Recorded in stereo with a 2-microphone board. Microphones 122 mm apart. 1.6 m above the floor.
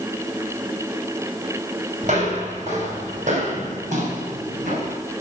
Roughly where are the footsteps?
Right.